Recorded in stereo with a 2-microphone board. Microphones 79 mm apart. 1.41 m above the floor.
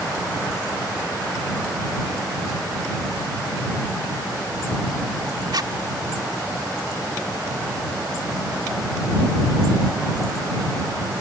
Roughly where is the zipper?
Right.